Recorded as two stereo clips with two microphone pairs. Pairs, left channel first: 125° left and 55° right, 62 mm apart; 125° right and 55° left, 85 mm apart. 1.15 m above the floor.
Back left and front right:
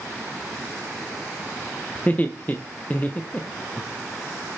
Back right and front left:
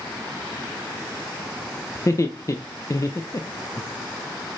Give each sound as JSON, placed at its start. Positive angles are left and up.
{"t": 1.9, "sound": "laughter", "azimuth_deg": -175, "distance_m": 0.6}